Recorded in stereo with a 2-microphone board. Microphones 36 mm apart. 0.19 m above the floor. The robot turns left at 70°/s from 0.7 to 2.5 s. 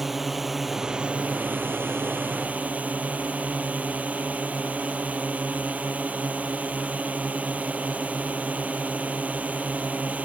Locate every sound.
0.0 s a drone: 10° right; by 10.2 s 135° right